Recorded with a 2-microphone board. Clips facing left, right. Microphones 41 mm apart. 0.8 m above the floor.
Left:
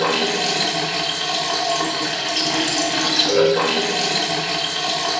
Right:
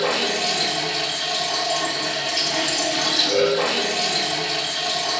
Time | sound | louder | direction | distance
0.0 | running water | left 2 dB | 70° left (ahead or behind) | 0.9 m